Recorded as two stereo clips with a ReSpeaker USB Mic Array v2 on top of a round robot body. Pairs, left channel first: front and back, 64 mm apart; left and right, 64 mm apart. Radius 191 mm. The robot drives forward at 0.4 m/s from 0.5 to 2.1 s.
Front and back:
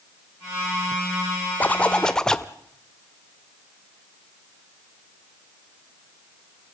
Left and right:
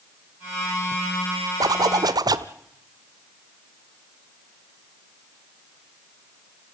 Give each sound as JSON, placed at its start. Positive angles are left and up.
{"t": 1.6, "sound": "a zipper", "azimuth_deg": -65, "distance_m": 0.8}